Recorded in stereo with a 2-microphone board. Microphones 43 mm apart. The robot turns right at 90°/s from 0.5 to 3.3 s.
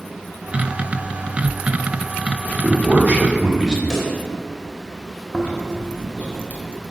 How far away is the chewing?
About 1.4 m.